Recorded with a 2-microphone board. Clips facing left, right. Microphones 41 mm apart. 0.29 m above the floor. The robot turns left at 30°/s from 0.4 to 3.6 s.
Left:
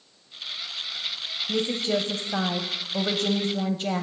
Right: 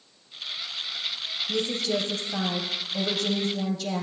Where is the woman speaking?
135° left, 1.2 m; by 4.0 s 70° left, 1.2 m.